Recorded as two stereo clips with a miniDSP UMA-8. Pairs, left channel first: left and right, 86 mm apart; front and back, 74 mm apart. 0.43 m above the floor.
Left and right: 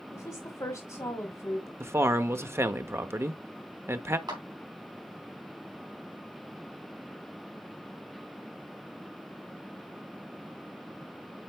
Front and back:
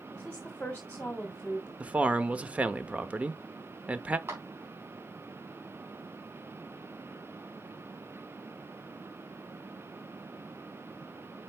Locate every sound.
0.1 s a woman speaking: 65° left, 1.4 m
1.8 s a man speaking: 115° right, 0.8 m
4.3 s a clap: 125° right, 3.5 m